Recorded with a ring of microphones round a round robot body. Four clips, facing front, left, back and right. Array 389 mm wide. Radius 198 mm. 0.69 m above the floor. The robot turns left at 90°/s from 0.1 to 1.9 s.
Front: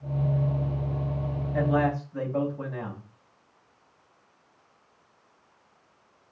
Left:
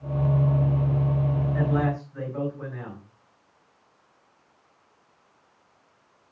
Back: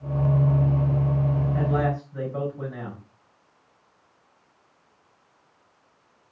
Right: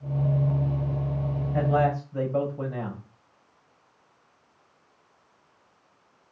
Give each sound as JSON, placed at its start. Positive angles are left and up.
{"t": 1.5, "sound": "a man speaking", "azimuth_deg": -60, "distance_m": 5.0}